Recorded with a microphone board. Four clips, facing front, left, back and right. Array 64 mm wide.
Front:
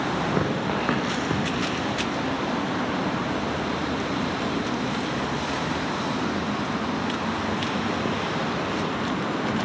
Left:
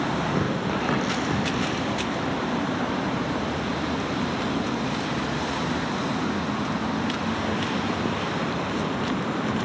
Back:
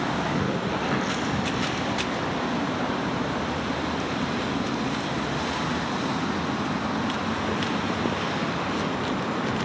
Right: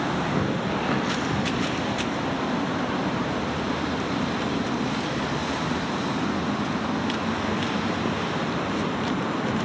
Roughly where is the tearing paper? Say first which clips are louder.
Even, front 1 dB; ahead.